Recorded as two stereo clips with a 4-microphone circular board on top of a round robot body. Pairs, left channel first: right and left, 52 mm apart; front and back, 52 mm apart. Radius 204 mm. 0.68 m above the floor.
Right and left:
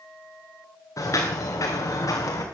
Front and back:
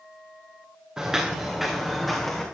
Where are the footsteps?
100° right, 3 m; by 2.4 s 85° right, 3.5 m.